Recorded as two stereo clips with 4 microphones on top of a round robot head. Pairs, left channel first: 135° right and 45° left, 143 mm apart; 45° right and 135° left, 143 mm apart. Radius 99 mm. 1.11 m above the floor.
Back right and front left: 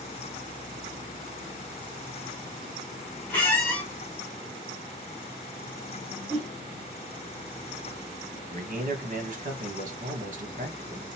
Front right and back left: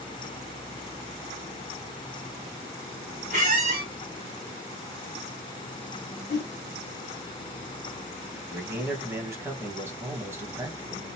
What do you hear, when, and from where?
3.3 s a squeak: 150° left, 1.2 m
6.3 s a whoosh: 30° right, 1.3 m
8.5 s a man speaking: 65° left, 1.8 m